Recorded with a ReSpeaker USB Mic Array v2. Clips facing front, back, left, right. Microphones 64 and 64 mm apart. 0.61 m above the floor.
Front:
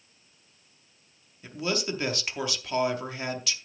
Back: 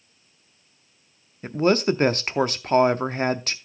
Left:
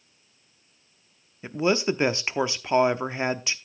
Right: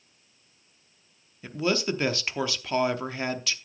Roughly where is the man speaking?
Behind left.